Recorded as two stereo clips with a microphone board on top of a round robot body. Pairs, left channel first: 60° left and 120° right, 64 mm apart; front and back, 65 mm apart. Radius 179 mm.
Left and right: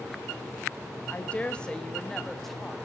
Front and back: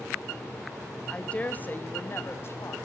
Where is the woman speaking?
50° left, 1.3 m; by 2.8 s 30° right, 1.9 m.